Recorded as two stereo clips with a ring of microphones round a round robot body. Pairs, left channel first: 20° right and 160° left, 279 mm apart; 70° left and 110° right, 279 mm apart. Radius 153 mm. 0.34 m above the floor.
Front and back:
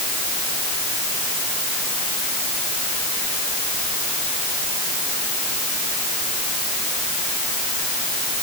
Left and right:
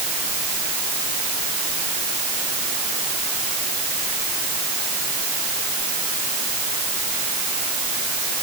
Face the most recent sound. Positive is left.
No sound to turn to.